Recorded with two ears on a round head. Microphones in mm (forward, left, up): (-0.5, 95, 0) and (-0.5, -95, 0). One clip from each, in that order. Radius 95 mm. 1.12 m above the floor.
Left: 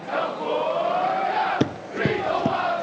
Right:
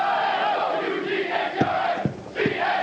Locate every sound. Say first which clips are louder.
1.6 s running footsteps: right 3 dB; 25° left (ahead or behind), 1.1 m; by 2.8 s 30° left (ahead or behind), 2 m